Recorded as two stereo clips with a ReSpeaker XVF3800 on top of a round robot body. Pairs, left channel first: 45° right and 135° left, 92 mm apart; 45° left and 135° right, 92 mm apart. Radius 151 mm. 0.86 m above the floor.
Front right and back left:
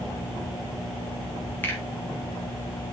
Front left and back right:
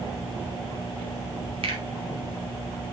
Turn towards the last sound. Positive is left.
turn(degrees=-115)